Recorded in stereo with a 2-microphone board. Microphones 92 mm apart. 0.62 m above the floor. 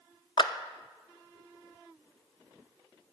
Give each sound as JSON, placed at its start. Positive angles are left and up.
{"t": 0.4, "sound": "a clap", "side_deg": 55, "distance_m": 0.5}